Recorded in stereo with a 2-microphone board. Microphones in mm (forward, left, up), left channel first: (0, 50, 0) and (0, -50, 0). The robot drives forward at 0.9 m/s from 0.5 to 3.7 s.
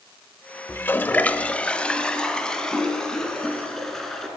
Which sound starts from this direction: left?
A toilet flushing, at 0.7 s.